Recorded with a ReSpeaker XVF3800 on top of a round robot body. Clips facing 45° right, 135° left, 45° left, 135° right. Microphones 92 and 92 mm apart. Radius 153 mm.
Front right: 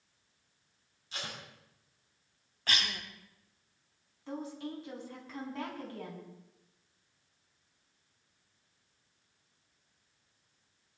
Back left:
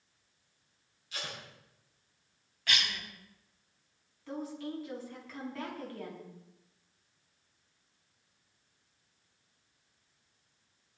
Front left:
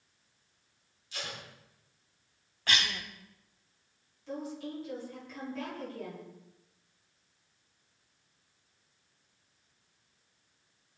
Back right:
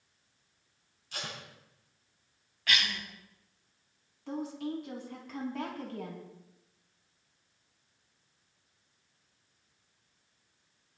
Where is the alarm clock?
I don't hear an alarm clock.